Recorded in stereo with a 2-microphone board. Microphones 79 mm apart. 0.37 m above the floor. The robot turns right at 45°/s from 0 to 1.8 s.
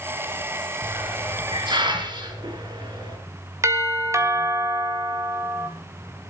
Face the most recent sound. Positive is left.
turn(degrees=-40)  # may be behind; listen again after turning